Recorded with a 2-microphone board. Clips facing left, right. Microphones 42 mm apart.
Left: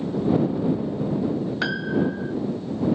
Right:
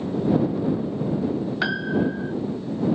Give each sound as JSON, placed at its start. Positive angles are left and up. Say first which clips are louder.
{"t": 1.6, "sound": "a piano", "louder": "right 1 dB", "side_deg": -5}